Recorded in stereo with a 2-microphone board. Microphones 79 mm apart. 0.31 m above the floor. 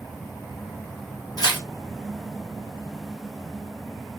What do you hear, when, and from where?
1.4 s tearing paper: 50° left (ahead or behind), 1.7 m